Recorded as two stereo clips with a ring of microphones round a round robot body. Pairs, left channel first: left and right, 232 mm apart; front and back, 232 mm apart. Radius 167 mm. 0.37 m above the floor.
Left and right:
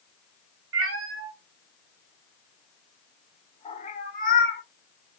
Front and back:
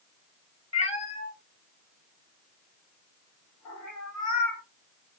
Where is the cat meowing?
70° right, 1.1 m; by 4.6 s 40° left, 1.5 m.